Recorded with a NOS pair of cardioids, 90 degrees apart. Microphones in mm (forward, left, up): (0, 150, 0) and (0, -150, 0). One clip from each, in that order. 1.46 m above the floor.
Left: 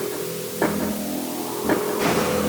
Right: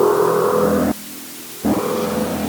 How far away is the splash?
No splash in this recording.